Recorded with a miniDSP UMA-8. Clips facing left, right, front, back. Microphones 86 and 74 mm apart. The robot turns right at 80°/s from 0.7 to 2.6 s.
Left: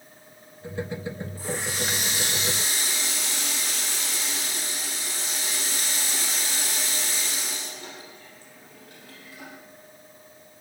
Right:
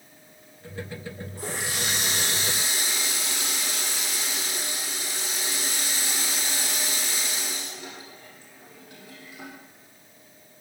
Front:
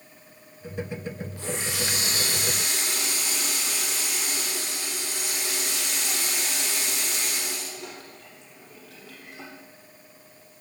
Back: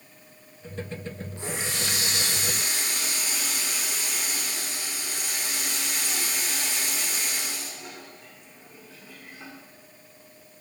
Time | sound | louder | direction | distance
1.4 | a running tap | even, even | 115° right | 6 m